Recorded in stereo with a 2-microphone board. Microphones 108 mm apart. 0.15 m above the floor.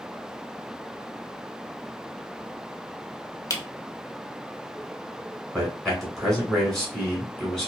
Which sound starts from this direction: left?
A camera shutter, at 3.5 s.